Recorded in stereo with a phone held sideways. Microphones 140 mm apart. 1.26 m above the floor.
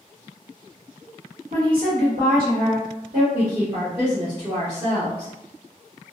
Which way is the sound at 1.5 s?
75° right (ahead or behind).